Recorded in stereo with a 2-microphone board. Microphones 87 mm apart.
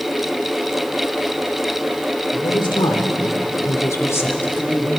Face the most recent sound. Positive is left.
turn(degrees=5)  # may be behind; listen again after turning